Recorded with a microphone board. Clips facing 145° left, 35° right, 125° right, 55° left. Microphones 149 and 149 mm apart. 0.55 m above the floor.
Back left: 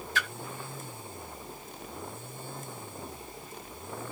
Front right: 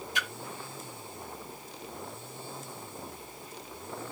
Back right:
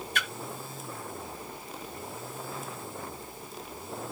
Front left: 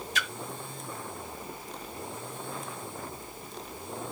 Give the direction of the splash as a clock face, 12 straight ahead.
3 o'clock.